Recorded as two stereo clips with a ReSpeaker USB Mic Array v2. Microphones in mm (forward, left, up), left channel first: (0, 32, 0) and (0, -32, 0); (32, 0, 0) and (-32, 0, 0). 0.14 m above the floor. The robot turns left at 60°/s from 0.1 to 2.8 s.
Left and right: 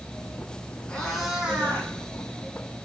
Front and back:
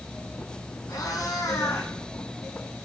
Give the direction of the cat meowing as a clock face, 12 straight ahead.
11 o'clock.